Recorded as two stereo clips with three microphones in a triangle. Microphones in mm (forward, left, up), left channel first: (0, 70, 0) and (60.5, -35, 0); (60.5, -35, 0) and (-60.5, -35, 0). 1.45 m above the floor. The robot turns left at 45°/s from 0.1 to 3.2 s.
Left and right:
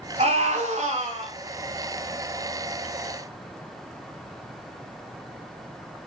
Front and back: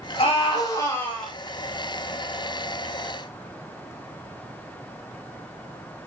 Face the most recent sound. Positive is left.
turn(degrees=-170)